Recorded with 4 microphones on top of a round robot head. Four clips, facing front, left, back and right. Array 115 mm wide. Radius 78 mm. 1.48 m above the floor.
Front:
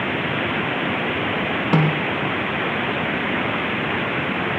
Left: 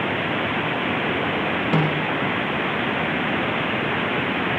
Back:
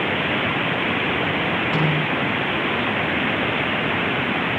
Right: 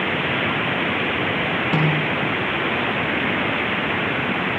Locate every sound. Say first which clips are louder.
1.7 s a snare drum: right 1 dB, front 2 dB; straight ahead, 3 m